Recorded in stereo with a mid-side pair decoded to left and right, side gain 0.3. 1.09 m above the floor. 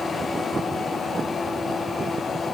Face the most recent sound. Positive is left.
No sound to turn to.